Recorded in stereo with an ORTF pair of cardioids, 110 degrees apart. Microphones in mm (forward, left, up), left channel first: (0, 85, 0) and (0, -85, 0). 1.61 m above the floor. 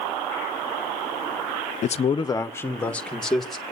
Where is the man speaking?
45° left, 0.8 m; by 3.6 s straight ahead, 2.5 m.